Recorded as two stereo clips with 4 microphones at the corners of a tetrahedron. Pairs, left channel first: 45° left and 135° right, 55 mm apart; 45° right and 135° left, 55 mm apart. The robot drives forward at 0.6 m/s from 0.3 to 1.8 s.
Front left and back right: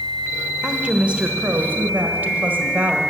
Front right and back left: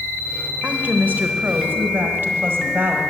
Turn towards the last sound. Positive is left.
turn(degrees=170)